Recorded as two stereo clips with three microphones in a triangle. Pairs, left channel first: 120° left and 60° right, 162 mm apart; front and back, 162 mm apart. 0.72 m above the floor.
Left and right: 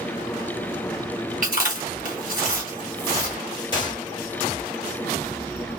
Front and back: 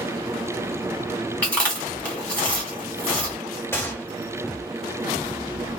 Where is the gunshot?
70° left, 1.0 m.